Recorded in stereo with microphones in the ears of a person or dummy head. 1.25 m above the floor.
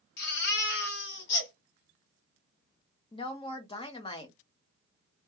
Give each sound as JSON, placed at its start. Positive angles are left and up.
{"t": 0.2, "sound": "a baby crying", "side_deg": 60, "distance_m": 1.3}
{"t": 3.1, "sound": "a woman speaking", "side_deg": 30, "distance_m": 0.7}